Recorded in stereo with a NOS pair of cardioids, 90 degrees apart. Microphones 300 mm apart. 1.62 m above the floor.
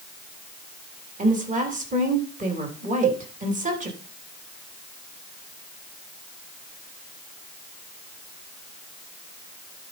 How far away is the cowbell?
About 1.0 m.